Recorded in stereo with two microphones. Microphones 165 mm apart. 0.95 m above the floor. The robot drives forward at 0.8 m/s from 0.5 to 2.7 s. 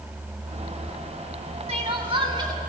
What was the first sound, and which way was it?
Crying, 40° right (ahead or behind).